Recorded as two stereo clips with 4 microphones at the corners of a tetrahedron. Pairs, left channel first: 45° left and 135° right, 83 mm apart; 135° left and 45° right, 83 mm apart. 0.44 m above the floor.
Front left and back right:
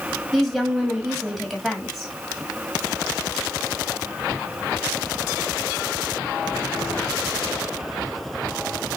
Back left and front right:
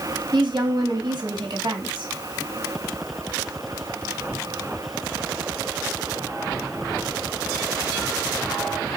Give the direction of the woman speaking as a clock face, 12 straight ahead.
1 o'clock.